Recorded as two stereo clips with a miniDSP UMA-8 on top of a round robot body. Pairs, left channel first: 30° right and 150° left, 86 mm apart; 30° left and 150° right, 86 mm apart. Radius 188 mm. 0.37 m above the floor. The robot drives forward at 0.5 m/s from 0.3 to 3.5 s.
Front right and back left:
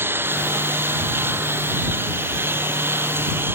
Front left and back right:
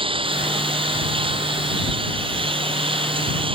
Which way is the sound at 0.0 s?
145° right.